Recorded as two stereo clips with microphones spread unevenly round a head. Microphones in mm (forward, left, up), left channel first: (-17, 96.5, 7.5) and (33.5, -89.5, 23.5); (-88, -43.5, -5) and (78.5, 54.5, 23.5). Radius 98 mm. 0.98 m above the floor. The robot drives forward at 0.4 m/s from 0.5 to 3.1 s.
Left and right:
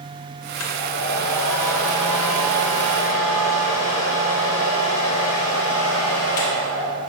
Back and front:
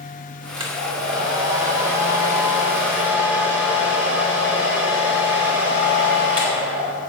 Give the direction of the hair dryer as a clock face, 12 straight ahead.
9 o'clock.